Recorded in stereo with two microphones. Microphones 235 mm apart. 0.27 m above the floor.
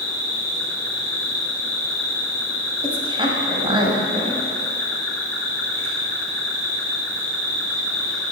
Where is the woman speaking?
20° right (ahead or behind), 1.5 m.